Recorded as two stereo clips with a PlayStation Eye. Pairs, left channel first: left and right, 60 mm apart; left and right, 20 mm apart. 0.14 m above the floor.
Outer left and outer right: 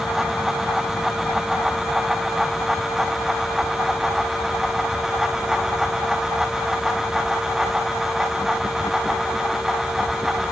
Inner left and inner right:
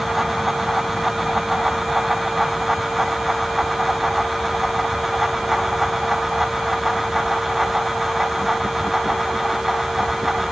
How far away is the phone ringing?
I don't hear a phone ringing.